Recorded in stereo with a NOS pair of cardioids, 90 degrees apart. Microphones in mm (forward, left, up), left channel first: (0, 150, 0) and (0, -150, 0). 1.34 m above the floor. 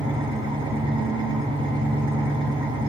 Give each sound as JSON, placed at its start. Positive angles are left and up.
{"t": 0.0, "sound": "an engine running", "azimuth_deg": -15, "distance_m": 2.5}